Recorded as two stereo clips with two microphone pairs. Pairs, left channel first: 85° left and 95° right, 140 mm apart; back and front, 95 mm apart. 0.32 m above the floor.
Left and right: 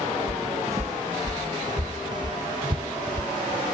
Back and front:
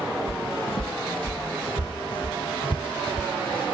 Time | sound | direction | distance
0.3 | footsteps | 165° right | ?